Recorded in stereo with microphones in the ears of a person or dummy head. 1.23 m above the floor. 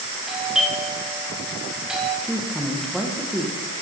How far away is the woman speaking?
About 0.9 m.